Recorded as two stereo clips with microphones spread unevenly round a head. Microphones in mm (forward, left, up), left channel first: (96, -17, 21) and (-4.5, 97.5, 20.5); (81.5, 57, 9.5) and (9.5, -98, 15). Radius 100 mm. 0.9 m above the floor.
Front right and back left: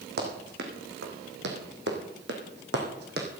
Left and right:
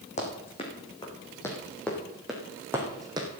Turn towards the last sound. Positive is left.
turn(degrees=175)